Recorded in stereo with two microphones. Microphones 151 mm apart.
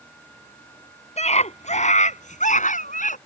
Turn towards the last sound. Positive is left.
turn(degrees=60)  # may be behind; listen again after turning